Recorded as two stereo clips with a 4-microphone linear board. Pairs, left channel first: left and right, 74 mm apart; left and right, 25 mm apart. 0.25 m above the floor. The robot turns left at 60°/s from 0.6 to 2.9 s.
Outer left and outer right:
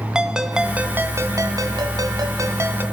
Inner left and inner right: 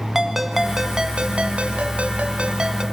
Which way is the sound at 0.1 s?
10° right.